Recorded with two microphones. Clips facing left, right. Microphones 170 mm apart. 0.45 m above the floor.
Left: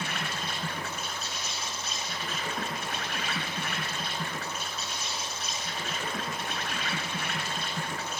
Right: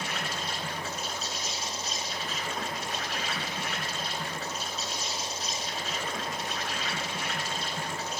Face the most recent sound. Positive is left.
turn(degrees=55)  # may be behind; listen again after turning